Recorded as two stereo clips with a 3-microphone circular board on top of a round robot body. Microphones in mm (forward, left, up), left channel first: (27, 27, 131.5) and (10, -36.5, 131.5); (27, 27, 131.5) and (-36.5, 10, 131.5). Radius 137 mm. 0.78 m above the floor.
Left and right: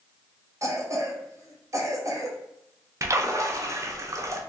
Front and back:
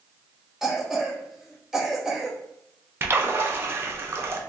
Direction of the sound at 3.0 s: 125° right.